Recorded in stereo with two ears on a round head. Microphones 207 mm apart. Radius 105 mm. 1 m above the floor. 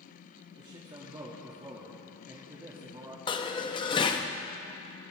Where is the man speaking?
20° right (ahead or behind), 1.9 m.